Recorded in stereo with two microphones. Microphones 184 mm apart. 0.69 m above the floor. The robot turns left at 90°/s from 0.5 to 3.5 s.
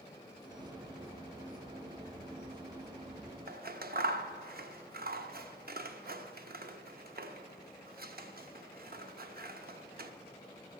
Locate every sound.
3.5 s scissors: 60° right (ahead or behind), 0.6 m